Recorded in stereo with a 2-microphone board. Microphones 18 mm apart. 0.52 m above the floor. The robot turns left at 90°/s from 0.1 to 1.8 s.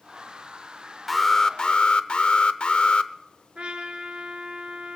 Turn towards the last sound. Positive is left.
turn(degrees=-60)  # may be behind; listen again after turning